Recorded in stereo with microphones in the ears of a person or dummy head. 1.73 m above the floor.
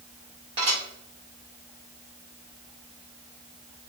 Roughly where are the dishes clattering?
Right.